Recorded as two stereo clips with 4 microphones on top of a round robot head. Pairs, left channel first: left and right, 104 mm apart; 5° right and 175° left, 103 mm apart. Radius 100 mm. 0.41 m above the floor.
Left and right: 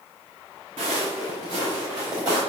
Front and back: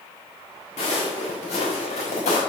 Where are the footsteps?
45° right, 3 m; by 2.4 s 25° right, 3 m.